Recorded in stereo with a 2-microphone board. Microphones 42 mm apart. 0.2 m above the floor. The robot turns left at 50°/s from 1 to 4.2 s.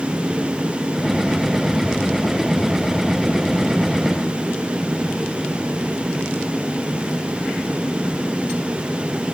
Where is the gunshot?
I don't hear a gunshot.